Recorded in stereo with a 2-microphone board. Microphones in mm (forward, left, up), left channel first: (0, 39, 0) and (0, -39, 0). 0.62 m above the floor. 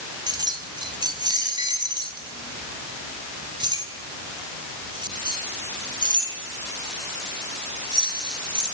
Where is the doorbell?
No doorbell in this recording.